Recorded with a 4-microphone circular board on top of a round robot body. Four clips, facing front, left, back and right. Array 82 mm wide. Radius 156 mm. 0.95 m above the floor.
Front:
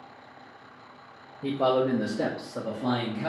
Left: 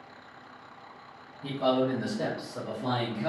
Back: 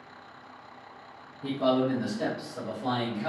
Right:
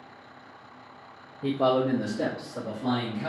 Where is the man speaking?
55° right, 0.6 m; by 3.3 s 20° left, 1.1 m.